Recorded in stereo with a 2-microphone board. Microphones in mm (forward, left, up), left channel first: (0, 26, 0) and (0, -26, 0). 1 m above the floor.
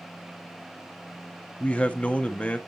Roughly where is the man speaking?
Left.